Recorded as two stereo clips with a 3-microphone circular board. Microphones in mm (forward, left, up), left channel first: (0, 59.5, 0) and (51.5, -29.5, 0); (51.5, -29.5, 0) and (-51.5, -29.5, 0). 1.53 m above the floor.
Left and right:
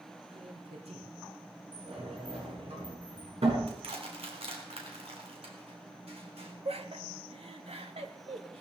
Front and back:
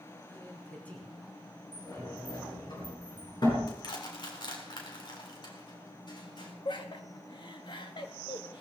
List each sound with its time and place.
0.3 s a man speaking: 70° right, 4 m; by 2.7 s 80° right, 7.5 m
1.7 s a sliding door: 45° right, 7 m
3.7 s crushing: 40° right, 3.5 m
6.7 s laughter: 40° right, 2 m